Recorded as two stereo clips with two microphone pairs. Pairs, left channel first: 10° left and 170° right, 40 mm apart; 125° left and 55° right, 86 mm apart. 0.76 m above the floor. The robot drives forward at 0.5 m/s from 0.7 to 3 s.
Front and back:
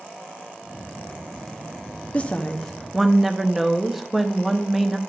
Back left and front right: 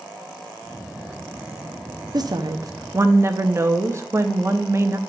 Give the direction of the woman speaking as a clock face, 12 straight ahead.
1 o'clock.